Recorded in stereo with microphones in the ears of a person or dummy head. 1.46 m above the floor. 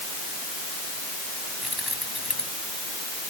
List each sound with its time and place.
1.6 s keys jangling: 5° right (ahead or behind)